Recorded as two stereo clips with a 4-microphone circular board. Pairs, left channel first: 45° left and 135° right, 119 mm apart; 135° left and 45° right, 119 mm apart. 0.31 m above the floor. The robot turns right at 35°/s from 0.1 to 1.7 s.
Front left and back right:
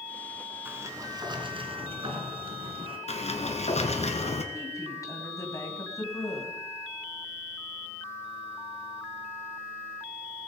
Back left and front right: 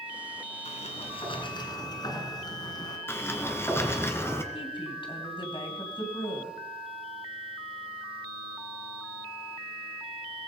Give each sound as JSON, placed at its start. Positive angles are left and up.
{"t": 0.7, "sound": "a sliding door", "azimuth_deg": 155, "distance_m": 2.5}
{"t": 3.1, "sound": "a sliding door", "azimuth_deg": 65, "distance_m": 1.9}
{"t": 4.5, "sound": "a woman speaking", "azimuth_deg": 100, "distance_m": 2.5}